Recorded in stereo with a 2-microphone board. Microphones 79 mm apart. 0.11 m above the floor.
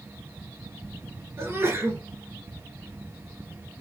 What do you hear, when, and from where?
1.4 s a sneeze: 35° right (ahead or behind), 1.8 m